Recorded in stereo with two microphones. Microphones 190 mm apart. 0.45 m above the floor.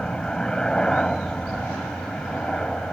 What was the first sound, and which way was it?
A helicopter, 5° left (ahead or behind).